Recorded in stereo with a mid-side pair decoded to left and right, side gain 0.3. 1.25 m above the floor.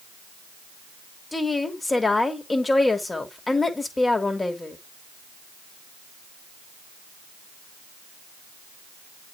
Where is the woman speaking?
35° left, 3 m.